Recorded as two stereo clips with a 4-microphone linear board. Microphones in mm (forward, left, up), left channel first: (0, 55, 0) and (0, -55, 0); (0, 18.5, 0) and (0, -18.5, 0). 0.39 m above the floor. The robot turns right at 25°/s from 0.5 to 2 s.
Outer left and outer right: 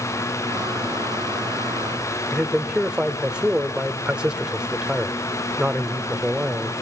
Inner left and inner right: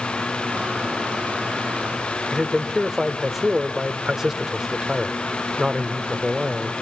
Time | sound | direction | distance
2.3 | a man speaking | 10° right (ahead or behind) | 0.8 m